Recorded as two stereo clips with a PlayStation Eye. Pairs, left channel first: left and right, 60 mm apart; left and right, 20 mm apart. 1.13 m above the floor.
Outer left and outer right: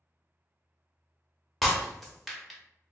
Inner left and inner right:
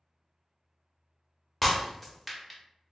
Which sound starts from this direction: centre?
Breaking glass, at 1.6 s.